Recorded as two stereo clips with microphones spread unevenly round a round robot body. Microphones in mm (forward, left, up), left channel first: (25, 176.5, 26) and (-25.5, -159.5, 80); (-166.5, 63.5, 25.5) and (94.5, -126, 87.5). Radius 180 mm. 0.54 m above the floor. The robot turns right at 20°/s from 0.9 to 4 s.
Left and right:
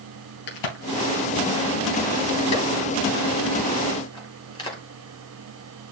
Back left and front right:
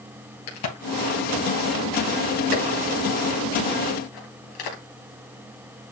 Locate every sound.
0.5 s a crack: 100° left, 3.5 m; by 4.8 s 160° left, 3.5 m